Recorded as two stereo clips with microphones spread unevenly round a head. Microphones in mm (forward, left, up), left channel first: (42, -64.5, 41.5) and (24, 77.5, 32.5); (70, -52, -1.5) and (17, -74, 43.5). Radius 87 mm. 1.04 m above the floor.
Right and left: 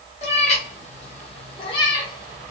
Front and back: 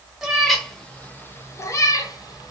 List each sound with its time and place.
0.2 s a cat meowing: 125° right, 0.9 m; by 2.5 s 25° right, 1.0 m